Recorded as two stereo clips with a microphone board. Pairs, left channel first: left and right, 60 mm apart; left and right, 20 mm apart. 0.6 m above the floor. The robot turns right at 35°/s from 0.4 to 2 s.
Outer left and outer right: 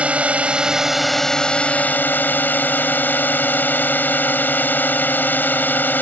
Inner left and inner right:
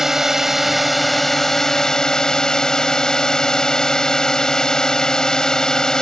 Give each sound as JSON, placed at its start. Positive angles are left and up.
{"t": 0.0, "sound": "a drone", "azimuth_deg": -20}